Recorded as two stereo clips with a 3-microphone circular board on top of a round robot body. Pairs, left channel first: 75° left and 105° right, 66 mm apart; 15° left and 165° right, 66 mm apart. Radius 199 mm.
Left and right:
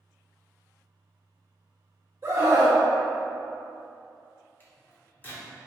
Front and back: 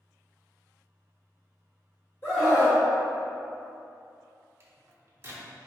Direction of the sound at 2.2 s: 45° right.